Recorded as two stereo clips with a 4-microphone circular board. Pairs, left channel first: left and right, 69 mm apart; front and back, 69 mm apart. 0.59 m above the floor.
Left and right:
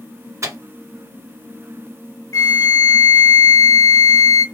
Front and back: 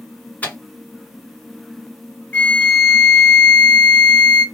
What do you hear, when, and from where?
0.4 s a microwave: 60° right, 0.8 m
2.3 s a flute: 65° left, 0.7 m